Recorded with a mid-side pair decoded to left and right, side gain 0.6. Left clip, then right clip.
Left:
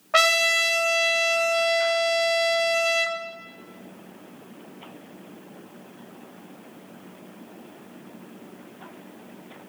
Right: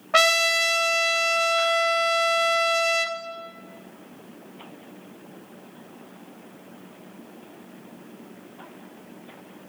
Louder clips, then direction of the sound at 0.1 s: Even; 5° right.